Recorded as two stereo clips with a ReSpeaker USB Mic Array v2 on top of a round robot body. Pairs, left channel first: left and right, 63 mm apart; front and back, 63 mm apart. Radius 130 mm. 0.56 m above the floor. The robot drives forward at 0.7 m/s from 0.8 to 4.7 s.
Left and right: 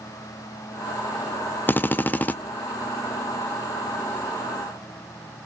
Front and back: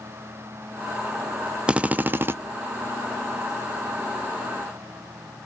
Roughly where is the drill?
Behind left.